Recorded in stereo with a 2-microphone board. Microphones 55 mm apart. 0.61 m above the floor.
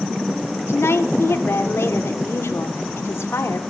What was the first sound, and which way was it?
A woman speaking, 50° left (ahead or behind).